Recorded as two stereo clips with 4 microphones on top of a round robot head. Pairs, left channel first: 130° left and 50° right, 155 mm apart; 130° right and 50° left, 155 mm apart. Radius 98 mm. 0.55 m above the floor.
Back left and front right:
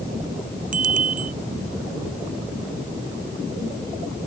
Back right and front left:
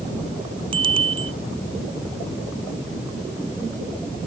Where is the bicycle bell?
10° right.